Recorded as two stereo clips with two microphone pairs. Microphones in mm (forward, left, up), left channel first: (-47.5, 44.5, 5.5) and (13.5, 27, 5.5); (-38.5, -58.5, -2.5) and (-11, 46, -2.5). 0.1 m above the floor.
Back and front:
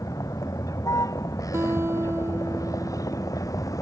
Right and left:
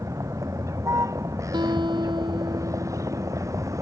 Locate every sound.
0.0 s a vehicle: 135° left
1.5 s a guitar: 30° left